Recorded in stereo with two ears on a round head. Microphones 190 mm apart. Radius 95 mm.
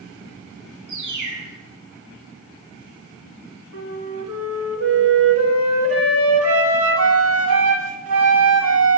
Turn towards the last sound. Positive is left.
turn(degrees=-70)  # may be behind; listen again after turning